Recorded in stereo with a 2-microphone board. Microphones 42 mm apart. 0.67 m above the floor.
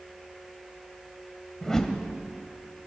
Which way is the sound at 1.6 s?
10° left (ahead or behind).